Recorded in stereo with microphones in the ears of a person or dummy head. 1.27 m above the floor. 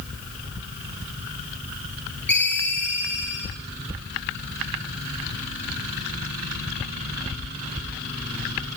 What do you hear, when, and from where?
2.3 s a ringtone: 10° left (ahead or behind), 7.5 m